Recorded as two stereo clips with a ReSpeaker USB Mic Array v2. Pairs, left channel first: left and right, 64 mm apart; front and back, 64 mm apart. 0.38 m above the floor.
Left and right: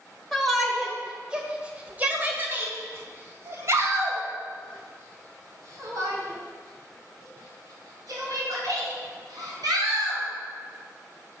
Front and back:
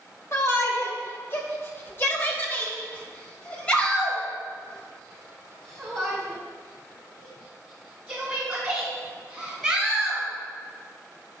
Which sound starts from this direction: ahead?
A shout, at 0.3 s.